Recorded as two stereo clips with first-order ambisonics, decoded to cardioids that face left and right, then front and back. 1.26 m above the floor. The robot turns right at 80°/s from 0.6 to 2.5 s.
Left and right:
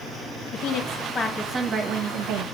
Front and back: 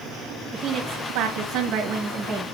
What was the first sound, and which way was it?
A woman speaking, 120° left.